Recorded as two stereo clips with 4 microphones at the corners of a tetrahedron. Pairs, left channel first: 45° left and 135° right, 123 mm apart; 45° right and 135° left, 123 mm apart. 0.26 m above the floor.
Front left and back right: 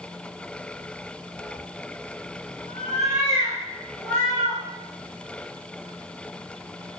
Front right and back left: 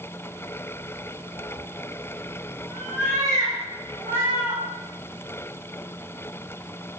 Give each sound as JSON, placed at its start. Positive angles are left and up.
{"t": 1.4, "sound": "a cat meowing", "azimuth_deg": -50, "distance_m": 1.2}